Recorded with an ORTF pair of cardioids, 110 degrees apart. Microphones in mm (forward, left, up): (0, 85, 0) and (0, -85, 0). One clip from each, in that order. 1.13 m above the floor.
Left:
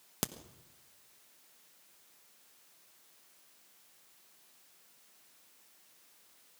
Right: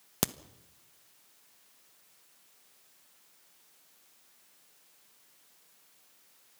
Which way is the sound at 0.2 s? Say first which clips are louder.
Right 6 dB; 30° right.